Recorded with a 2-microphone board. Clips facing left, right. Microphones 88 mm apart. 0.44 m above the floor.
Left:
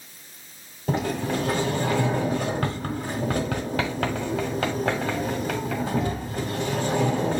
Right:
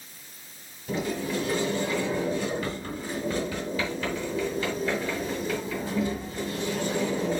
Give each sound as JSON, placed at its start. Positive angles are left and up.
{"t": 0.9, "sound": "a sliding door", "side_deg": 65, "distance_m": 1.4}